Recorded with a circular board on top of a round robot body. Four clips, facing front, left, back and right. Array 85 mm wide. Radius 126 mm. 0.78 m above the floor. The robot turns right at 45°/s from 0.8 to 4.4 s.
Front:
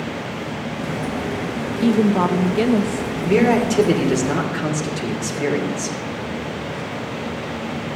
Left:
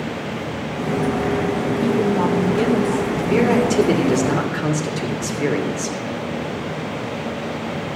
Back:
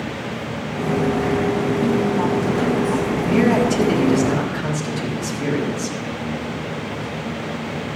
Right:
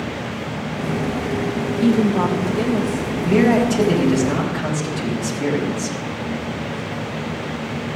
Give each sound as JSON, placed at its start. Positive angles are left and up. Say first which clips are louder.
{"t": 1.8, "sound": "a woman speaking", "louder": "right 3 dB, front 6 dB", "azimuth_deg": -35, "distance_m": 0.8}
{"t": 3.2, "sound": "a man speaking", "louder": "right 2 dB, front 2 dB", "azimuth_deg": 10, "distance_m": 3.0}